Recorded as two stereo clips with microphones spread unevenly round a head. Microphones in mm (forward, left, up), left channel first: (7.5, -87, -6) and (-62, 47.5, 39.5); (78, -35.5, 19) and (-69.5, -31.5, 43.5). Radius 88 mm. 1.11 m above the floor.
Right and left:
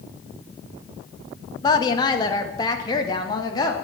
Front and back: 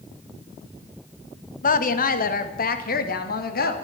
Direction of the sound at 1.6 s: 5° right.